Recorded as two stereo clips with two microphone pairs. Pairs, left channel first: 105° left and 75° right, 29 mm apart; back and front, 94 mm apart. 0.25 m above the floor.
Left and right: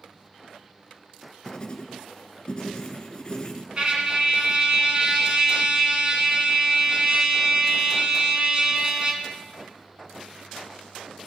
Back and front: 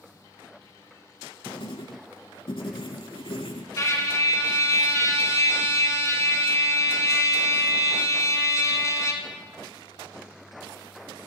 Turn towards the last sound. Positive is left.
turn(degrees=-125)